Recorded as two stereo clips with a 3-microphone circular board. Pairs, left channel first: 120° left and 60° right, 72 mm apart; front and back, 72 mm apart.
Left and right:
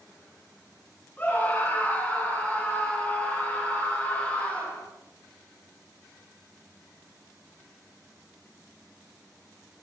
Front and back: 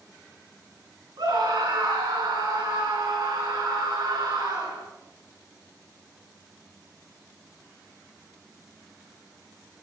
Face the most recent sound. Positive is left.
turn(degrees=-170)